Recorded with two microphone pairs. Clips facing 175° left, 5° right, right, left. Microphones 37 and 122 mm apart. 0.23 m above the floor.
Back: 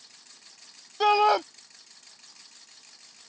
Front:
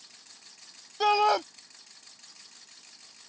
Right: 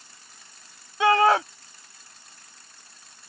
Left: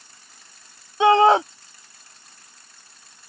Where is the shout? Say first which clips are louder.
Back 2 dB, left 4 dB; 105° left.